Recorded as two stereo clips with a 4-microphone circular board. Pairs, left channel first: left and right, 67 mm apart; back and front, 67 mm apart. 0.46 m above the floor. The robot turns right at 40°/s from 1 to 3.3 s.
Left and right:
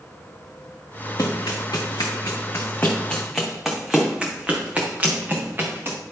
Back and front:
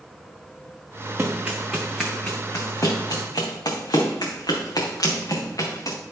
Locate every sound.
1.2 s running footsteps: 60° left, 2.5 m; by 6.0 s 145° right, 2.5 m